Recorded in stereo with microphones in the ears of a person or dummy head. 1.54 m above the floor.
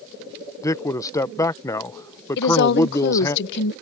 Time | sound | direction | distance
0.6 | a man speaking | 20° left (ahead or behind) | ?
2.4 | a woman speaking | 65° left (ahead or behind) | ?